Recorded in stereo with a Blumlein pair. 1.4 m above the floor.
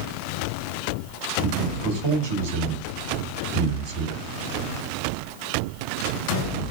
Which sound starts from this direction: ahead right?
A man speaking, at 1.4 s.